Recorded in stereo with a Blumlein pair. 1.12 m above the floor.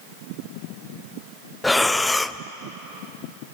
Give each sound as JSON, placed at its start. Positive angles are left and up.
{"t": 1.6, "sound": "breathing", "azimuth_deg": 5, "distance_m": 0.6}